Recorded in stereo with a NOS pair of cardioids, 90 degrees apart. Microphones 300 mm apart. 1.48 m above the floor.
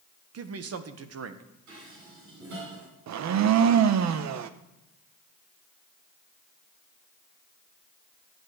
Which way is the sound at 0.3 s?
55° right.